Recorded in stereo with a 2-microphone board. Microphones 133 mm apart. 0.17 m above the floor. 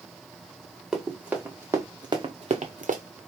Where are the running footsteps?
5° right (ahead or behind), 1.5 m; by 3.0 s 80° right, 0.8 m.